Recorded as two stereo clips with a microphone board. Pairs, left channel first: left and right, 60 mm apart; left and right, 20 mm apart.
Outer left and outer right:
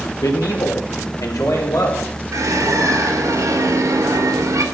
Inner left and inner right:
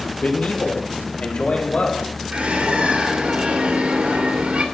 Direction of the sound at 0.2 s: 75° left (ahead or behind).